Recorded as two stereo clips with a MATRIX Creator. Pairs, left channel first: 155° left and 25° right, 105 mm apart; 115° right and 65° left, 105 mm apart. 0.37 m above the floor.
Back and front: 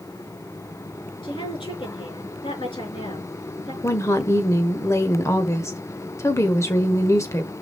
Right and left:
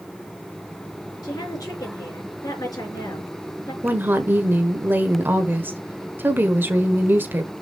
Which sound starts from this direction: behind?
A woman speaking, at 1.2 s.